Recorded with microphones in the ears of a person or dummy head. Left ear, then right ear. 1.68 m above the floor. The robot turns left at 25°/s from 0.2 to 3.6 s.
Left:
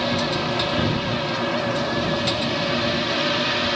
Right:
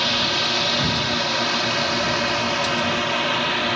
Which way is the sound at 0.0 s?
65° right.